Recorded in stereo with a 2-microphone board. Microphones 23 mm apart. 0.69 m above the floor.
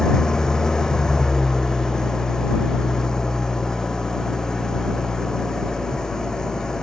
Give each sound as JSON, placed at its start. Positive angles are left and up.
{"t": 0.0, "sound": "an engine running", "side_deg": 30}